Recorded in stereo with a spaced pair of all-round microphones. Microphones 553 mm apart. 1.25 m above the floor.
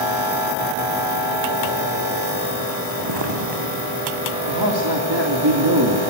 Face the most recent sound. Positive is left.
turn(degrees=-45)  # may be behind; listen again after turning